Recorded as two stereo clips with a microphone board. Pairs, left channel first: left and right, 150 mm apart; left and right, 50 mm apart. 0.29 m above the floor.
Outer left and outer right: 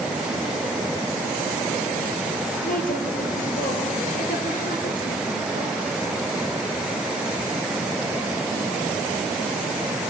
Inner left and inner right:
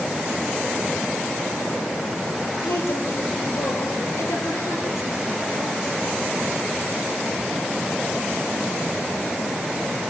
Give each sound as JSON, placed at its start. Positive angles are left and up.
{"t": 2.6, "sound": "a woman speaking", "side_deg": 75, "distance_m": 5.0}